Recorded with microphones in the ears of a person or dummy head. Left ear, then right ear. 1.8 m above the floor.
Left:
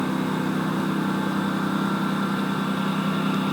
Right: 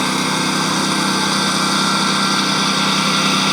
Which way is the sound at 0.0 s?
70° right (ahead or behind).